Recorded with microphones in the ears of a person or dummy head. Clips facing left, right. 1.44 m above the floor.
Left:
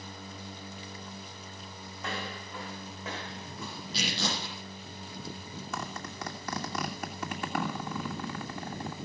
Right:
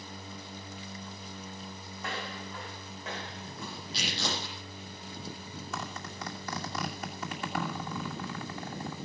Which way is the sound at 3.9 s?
80° left.